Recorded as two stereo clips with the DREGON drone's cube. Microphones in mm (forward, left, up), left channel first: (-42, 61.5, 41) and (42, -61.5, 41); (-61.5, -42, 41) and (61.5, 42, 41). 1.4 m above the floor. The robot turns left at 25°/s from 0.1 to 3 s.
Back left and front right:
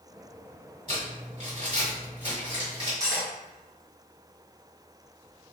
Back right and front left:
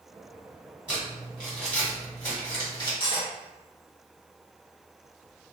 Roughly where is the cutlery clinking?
Behind right.